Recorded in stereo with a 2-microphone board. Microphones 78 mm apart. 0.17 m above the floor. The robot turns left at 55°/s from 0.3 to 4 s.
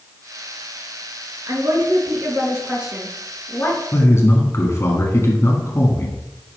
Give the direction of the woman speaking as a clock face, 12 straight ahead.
3 o'clock.